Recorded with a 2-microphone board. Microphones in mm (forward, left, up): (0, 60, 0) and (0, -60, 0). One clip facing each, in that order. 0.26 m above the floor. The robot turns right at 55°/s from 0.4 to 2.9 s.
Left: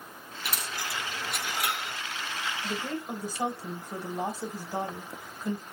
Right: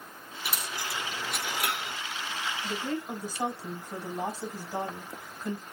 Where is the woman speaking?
15° left (ahead or behind), 1.5 m; by 5.6 s 10° left (ahead or behind), 1.5 m.